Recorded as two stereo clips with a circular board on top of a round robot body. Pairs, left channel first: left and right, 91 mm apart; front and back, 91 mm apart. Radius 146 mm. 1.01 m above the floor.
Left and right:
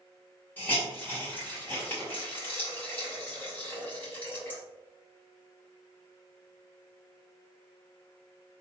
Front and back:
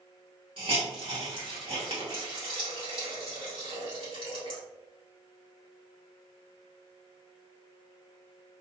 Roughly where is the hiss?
Behind.